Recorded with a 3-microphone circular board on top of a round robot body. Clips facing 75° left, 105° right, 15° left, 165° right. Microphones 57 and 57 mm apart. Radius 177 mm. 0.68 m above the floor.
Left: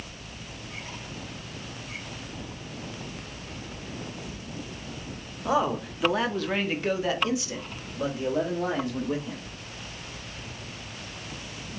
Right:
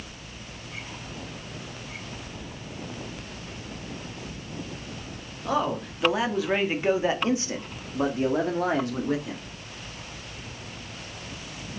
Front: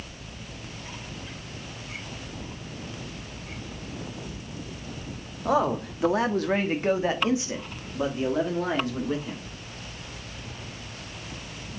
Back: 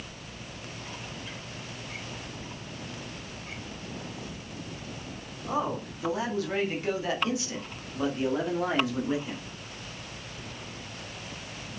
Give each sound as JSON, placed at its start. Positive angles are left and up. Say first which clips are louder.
{"t": 5.5, "sound": "a man speaking", "louder": "left 1 dB, front 6 dB", "azimuth_deg": 0, "distance_m": 2.0}